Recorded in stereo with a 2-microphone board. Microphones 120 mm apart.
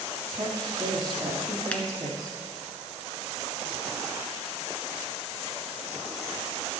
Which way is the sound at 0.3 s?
35° right (ahead or behind).